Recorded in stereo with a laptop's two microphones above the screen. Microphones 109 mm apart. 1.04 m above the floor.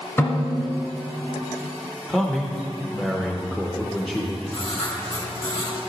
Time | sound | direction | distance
0.2 | a snare drum | 25° left (ahead or behind) | 1.5 m
2.1 | a man speaking | 5° left (ahead or behind) | 0.6 m
4.5 | writing | 55° left (ahead or behind) | 3 m